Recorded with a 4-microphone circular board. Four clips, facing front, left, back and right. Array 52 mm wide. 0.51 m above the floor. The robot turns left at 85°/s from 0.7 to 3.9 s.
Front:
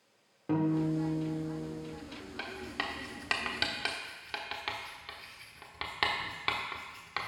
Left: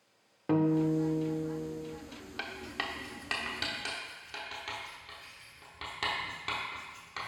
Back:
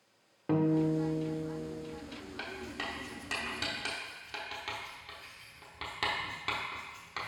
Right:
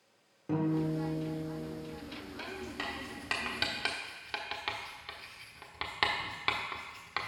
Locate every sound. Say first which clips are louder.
0.5 s a guitar: left 4 dB, back 1 dB; 110° left, 1.0 m; by 2.0 s straight ahead, 1.0 m
2.4 s writing: left 3 dB, front 2 dB; 75° left, 1.0 m; by 7.3 s 50° right, 1.0 m